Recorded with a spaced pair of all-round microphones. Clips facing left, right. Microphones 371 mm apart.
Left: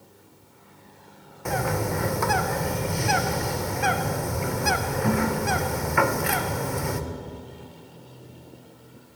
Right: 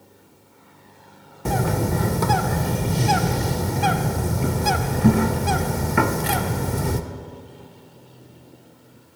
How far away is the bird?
About 0.6 m.